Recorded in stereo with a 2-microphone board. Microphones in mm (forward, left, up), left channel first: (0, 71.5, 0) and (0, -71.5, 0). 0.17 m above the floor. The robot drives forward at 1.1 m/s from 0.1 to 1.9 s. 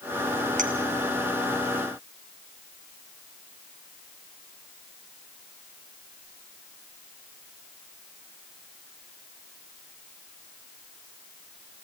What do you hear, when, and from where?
0.6 s a clink: 65° right (ahead or behind), 2.5 m